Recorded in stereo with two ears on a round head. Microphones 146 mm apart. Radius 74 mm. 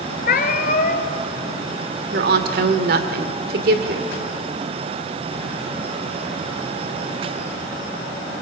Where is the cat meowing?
55° left (ahead or behind), 1.6 m.